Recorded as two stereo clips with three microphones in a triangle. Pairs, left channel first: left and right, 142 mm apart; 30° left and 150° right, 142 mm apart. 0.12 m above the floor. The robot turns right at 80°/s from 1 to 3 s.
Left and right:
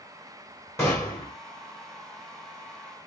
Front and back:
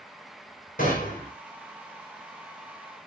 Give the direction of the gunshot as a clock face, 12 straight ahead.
11 o'clock.